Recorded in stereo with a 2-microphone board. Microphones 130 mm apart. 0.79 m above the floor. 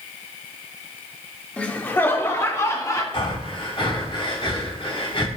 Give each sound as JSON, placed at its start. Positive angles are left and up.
{"t": 1.6, "sound": "laughter", "side_deg": 10, "distance_m": 1.4}
{"t": 3.1, "sound": "breathing", "side_deg": 45, "distance_m": 3.0}